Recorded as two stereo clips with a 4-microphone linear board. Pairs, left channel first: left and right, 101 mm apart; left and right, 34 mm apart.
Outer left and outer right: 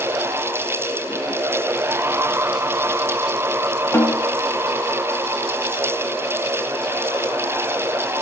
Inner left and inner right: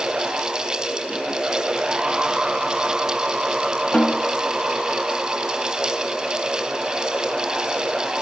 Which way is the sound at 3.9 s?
25° left (ahead or behind).